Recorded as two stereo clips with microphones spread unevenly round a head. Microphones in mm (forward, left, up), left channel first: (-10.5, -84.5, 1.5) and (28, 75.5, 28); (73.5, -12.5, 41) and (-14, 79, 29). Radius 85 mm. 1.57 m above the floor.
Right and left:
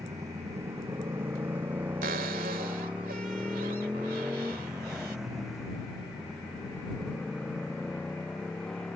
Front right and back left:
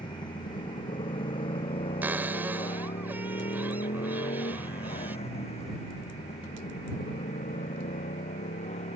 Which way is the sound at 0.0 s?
5° left.